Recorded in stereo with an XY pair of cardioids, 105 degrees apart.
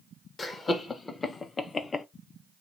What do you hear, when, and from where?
0.4 s laughter: 35° left, 1.6 m; by 2.1 s 30° left, 0.7 m